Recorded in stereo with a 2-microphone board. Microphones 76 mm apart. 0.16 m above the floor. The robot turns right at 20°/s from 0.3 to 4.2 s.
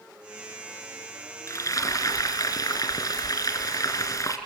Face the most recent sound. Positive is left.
turn(degrees=115)